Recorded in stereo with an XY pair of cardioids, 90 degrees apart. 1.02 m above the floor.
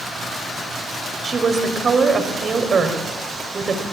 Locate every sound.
1.2 s a woman speaking: 45° right, 5 m